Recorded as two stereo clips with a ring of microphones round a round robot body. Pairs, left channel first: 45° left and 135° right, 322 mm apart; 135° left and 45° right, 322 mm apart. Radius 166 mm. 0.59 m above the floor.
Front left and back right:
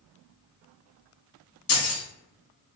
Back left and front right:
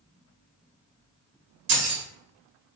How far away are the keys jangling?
About 1.1 m.